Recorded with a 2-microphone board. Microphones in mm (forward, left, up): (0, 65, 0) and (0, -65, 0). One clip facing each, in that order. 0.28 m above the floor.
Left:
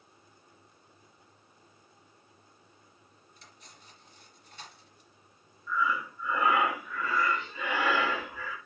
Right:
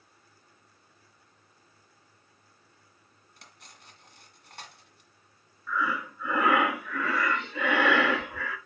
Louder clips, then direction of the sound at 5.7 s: Even; 70° right (ahead or behind).